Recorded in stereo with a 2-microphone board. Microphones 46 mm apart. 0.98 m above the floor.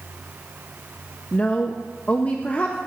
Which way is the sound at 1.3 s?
35° left (ahead or behind).